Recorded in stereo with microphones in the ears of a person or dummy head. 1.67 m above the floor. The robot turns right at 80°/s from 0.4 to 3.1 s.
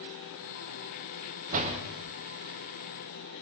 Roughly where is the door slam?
Right.